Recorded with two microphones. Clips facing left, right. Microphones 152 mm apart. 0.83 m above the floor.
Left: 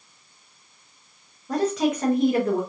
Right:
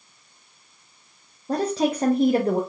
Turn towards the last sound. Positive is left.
turn(degrees=-35)  # may be behind; listen again after turning